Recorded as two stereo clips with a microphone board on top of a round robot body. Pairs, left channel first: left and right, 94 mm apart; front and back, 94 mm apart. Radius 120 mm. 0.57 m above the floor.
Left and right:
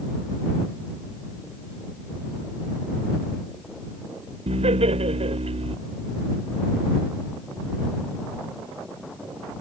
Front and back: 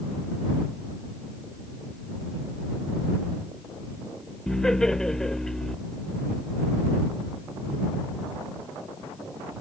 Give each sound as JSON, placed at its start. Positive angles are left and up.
{"t": 4.5, "sound": "laughter", "azimuth_deg": -85}